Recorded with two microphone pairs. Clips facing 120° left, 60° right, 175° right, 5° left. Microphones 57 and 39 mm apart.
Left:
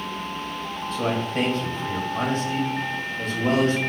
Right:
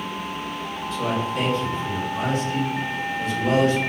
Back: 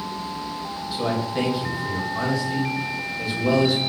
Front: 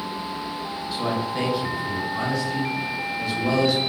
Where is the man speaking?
95° left, 1.3 m.